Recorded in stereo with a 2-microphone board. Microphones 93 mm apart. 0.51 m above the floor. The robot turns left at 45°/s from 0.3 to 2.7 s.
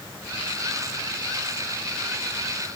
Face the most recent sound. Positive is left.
No sound to turn to.